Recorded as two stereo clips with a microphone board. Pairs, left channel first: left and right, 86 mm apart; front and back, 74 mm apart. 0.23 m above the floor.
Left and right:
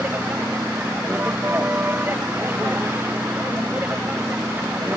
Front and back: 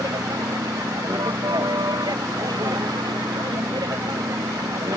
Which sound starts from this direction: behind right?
A vehicle, at 0.0 s.